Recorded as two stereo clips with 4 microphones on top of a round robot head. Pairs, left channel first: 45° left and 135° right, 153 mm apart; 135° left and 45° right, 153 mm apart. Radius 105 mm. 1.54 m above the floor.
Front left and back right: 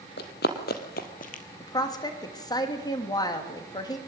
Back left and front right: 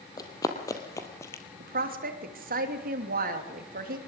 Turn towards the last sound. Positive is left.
turn(degrees=-20)